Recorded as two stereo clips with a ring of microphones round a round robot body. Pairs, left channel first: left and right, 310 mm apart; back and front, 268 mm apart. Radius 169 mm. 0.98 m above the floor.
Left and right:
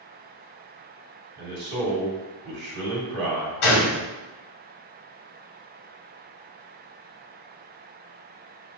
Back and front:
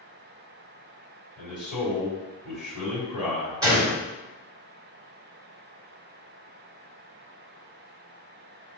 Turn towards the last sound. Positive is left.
turn(degrees=80)